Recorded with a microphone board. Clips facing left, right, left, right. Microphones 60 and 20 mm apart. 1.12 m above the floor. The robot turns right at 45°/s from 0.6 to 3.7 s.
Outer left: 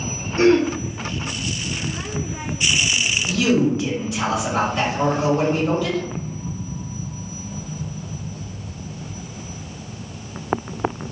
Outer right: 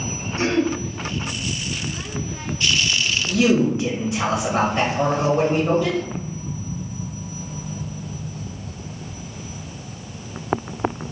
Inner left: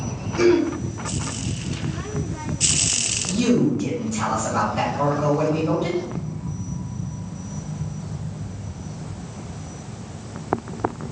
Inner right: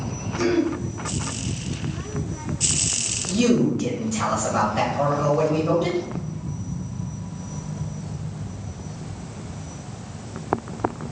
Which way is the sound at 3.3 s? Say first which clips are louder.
Outer right 1 dB, even; 30° right (ahead or behind).